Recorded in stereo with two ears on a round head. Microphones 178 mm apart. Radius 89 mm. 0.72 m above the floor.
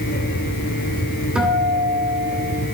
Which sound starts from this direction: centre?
A guitar, at 1.4 s.